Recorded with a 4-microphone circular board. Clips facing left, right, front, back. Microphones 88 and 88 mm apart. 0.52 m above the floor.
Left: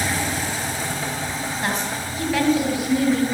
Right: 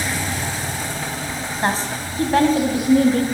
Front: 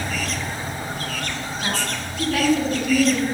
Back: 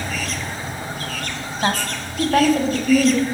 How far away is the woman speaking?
About 4 m.